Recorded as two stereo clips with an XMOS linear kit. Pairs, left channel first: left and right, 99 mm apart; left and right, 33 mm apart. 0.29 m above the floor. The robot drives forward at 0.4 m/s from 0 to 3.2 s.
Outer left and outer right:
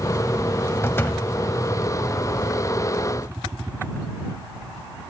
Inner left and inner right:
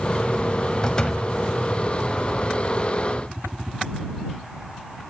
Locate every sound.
0.8 s a door slam: 25° left (ahead or behind), 1.3 m